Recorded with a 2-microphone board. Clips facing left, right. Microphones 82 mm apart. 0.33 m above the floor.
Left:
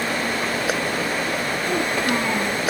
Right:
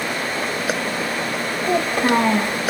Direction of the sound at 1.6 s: 50° right (ahead or behind).